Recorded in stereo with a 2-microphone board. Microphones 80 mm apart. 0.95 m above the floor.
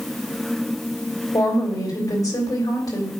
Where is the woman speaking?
55° left (ahead or behind), 3.5 m.